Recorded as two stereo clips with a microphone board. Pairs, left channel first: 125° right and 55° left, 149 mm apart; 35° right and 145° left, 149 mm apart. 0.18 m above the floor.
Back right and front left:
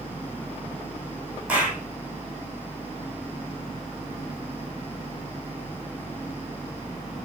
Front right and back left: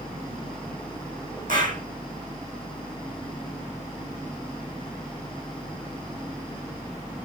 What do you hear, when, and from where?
1.5 s a clap: 135° left, 5 m